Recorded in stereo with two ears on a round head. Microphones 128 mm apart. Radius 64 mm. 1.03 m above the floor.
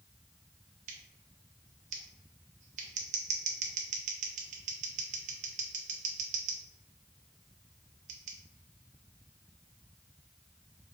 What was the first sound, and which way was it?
Scissors, 60° right (ahead or behind).